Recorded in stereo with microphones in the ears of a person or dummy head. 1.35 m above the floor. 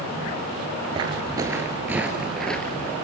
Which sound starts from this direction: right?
Footsteps, at 0.9 s.